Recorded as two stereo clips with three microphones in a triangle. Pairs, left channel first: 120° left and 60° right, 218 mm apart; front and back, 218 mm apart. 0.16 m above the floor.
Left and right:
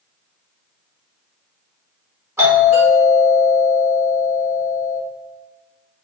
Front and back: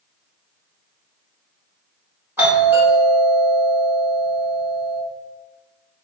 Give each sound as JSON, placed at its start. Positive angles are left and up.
{"t": 2.4, "sound": "a doorbell", "azimuth_deg": -115, "distance_m": 1.5}